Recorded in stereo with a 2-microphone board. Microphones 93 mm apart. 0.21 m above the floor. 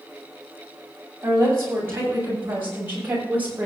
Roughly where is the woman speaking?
Right.